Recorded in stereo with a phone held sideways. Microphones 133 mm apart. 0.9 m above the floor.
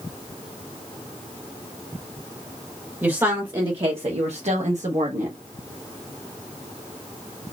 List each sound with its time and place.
3.0 s a woman speaking: 15° right (ahead or behind), 0.9 m; by 5.4 s 60° right (ahead or behind), 1.2 m